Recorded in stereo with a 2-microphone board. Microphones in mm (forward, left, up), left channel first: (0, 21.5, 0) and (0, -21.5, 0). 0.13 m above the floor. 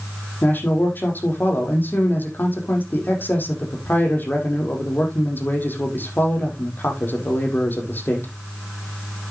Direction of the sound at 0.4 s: 50° left (ahead or behind).